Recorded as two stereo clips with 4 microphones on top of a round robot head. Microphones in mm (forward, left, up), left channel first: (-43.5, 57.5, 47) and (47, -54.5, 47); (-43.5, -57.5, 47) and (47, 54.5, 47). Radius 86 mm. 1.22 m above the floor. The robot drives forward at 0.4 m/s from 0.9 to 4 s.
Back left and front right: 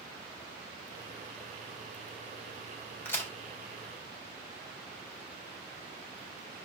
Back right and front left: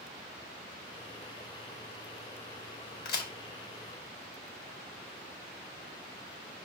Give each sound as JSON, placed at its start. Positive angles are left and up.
{"t": 3.0, "sound": "a crack", "azimuth_deg": -155, "distance_m": 4.0}